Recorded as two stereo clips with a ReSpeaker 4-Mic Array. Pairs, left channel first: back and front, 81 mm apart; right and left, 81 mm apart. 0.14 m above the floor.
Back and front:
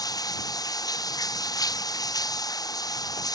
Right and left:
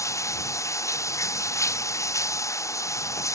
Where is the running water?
140° right.